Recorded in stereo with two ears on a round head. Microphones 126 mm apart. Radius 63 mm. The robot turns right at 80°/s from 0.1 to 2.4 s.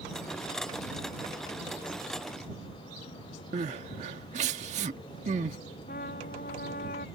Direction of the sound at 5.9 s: 65° left (ahead or behind).